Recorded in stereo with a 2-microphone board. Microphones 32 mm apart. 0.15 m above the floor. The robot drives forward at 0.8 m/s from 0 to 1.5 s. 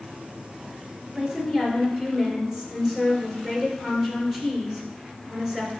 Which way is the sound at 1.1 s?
20° right (ahead or behind).